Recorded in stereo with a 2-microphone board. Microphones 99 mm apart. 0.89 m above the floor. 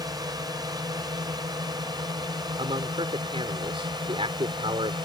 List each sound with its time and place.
0.0 s a drone: 40° right (ahead or behind); by 5.1 s 50° right (ahead or behind)
2.6 s a man speaking: 70° right (ahead or behind)